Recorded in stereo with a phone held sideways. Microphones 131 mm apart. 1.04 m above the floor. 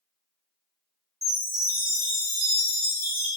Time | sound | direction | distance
1.2 | a chime | 25° right (ahead or behind) | 1.5 m